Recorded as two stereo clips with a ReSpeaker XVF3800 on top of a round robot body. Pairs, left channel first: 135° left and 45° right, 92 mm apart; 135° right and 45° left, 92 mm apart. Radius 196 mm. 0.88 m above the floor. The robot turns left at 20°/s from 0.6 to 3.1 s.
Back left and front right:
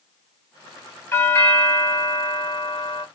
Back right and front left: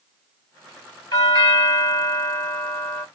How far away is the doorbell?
About 2.0 m.